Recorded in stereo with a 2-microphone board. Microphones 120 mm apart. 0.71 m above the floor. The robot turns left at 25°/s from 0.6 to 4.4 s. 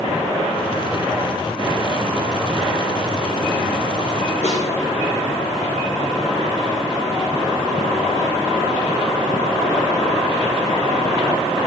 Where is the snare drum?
65° left (ahead or behind), 2.5 m.